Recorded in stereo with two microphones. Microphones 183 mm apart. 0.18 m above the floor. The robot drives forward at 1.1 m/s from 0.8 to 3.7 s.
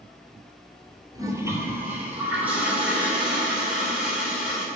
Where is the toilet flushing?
20° right (ahead or behind), 1.0 m; by 4.7 s 5° right (ahead or behind), 3.5 m.